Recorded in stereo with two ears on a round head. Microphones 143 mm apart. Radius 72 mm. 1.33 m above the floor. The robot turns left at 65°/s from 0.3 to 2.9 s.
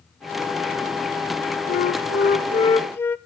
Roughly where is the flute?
Left.